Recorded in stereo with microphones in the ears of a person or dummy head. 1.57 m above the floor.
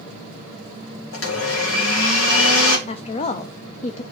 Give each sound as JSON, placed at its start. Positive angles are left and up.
{"t": 1.1, "sound": "a blender", "side_deg": 75, "distance_m": 1.7}
{"t": 2.9, "sound": "a woman speaking", "side_deg": 35, "distance_m": 0.5}